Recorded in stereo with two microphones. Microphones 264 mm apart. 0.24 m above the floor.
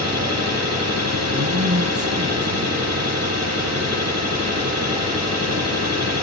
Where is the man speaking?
65° right (ahead or behind), 6 m.